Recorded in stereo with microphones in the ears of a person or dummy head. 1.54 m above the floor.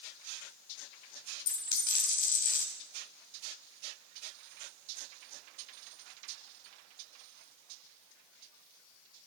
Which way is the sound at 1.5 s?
55° left (ahead or behind).